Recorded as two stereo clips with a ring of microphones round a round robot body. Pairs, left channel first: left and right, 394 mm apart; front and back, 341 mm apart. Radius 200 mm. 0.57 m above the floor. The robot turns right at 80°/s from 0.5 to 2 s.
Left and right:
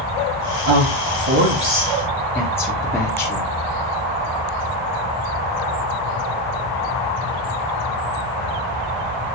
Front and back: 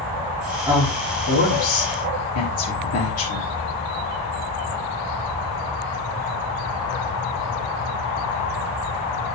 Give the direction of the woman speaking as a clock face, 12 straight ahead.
3 o'clock.